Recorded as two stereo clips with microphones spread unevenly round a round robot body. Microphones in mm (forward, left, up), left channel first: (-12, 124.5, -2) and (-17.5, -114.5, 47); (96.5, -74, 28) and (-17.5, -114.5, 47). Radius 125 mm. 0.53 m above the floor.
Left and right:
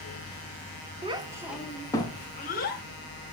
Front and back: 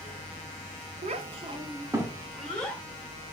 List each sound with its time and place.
1.0 s a child speaking: 165° right, 0.7 m; by 2.8 s 85° left, 0.8 m